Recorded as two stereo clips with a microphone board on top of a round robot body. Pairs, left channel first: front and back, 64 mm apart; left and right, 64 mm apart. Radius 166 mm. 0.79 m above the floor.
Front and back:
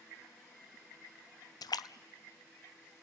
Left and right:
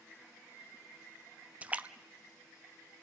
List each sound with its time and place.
1.6 s a splash: 20° right, 0.6 m